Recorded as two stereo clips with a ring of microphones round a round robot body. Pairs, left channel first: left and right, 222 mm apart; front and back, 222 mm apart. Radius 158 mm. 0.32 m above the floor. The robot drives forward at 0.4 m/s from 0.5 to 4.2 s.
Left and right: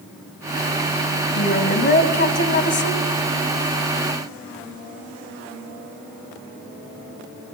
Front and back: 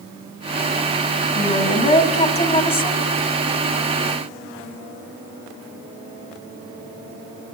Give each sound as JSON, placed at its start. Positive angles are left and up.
{"t": 1.4, "sound": "a woman speaking", "azimuth_deg": 55, "distance_m": 3.0}